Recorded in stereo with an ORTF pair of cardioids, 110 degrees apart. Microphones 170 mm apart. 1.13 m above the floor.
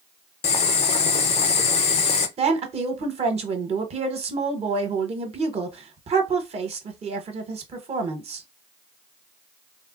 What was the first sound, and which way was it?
Boiling, 40° left.